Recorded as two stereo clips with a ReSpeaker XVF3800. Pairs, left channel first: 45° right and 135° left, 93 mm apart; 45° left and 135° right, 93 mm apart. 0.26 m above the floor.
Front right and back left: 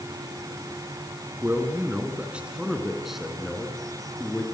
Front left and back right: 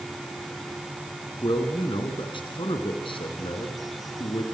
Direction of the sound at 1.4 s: 70° left.